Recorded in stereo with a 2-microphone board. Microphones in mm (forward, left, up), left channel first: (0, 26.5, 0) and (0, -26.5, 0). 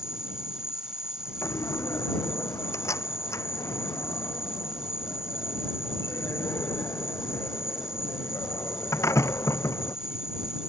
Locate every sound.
0.0 s an insect: 10° right (ahead or behind)
1.4 s a door slam: 75° left (ahead or behind)